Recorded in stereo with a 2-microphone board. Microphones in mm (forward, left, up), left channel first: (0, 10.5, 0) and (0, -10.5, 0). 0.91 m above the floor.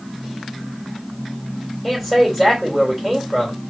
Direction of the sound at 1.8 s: 10° right (ahead or behind).